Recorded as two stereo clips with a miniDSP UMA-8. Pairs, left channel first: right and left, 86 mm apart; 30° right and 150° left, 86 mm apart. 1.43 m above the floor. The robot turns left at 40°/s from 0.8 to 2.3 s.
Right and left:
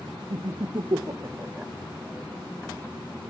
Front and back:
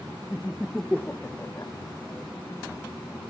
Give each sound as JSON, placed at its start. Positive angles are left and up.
{"t": 0.3, "sound": "laughter", "azimuth_deg": 55, "distance_m": 0.6}